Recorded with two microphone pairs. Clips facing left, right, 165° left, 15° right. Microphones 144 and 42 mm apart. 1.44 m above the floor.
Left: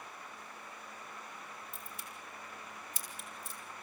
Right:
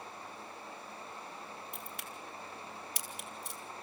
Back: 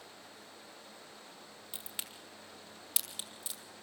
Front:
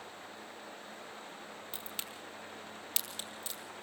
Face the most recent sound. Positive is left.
turn(degrees=-115)